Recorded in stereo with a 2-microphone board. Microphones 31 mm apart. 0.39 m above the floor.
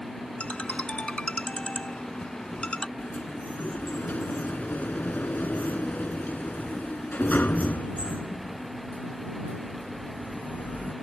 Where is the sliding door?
70° left (ahead or behind).